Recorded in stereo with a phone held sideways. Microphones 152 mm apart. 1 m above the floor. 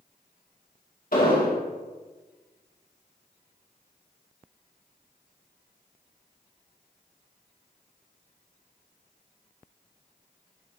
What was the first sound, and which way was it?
An explosion, 60° left (ahead or behind).